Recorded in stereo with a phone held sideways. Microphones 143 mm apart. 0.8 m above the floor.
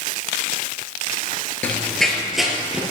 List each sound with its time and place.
1.6 s running footsteps: 10° left (ahead or behind), 0.8 m; by 2.8 s 5° right (ahead or behind), 1.2 m